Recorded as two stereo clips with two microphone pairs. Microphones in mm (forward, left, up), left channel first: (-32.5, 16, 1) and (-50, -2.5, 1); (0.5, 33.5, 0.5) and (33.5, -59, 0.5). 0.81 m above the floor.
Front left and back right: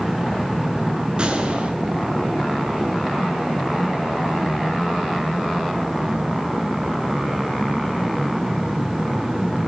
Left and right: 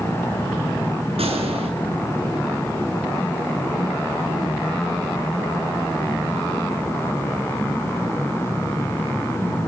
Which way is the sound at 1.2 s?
80° right.